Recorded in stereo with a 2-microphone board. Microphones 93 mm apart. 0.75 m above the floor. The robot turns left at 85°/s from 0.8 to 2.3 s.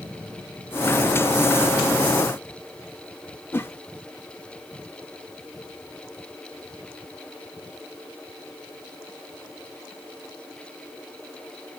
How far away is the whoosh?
About 0.6 m.